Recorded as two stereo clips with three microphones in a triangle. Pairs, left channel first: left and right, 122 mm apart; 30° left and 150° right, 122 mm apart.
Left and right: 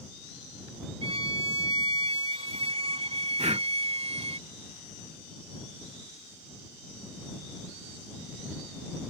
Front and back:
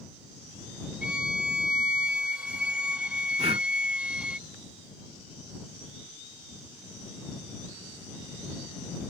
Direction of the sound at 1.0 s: 70° right.